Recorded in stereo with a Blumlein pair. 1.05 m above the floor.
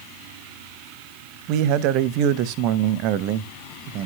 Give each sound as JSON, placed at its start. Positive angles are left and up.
{"t": 1.5, "sound": "a man speaking", "azimuth_deg": -40, "distance_m": 0.8}